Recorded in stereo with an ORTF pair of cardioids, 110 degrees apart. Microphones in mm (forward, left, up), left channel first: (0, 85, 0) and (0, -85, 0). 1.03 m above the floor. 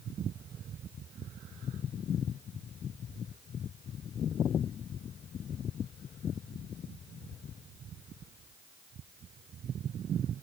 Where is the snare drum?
I don't hear a snare drum.